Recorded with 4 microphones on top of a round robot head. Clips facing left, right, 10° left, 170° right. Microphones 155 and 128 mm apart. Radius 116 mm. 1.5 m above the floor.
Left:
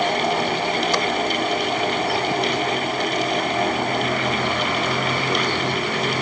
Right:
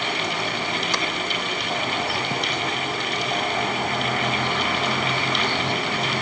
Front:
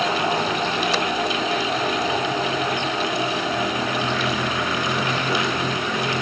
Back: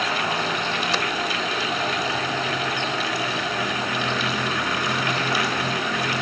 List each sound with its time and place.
Only background noise.